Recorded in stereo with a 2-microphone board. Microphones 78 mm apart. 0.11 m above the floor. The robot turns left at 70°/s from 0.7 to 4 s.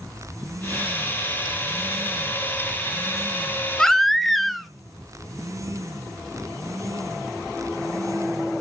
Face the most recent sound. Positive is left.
turn(degrees=0)  # may be behind; listen again after turning